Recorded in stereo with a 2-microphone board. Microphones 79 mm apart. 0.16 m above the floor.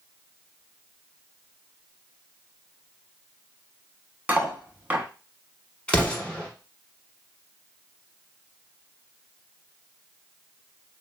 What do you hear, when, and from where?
4.3 s cutlery clinking: 20° right (ahead or behind), 0.7 m
5.9 s an explosion: 15° left (ahead or behind), 0.9 m